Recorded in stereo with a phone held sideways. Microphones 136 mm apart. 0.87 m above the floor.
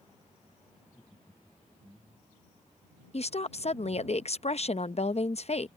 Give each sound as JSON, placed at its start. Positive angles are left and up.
{"t": 0.8, "sound": "laughter", "side_deg": 10}
{"t": 3.1, "sound": "a woman speaking", "side_deg": 55}